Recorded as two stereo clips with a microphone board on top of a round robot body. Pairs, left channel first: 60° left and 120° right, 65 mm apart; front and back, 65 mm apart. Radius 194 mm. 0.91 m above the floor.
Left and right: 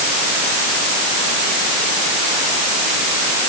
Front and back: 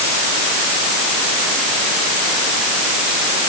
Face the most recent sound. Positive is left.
No sound to turn to.